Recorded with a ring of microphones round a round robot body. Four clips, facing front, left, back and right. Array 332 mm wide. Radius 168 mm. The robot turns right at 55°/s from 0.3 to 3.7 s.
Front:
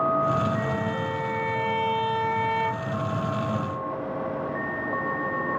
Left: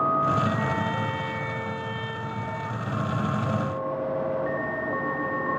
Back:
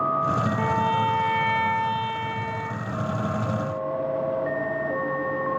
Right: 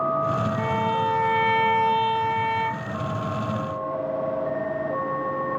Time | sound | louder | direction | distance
0.6 | a violin | right 4 dB, back 5 dB | 170° right | 0.7 m